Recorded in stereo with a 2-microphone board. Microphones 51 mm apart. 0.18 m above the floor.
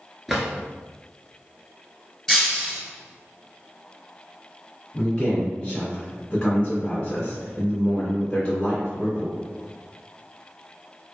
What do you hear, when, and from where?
0.3 s a drawer: centre (ahead or behind), 0.8 m
2.3 s breaking glass: centre (ahead or behind), 1.2 m
4.9 s a man speaking: 25° left (ahead or behind), 1.7 m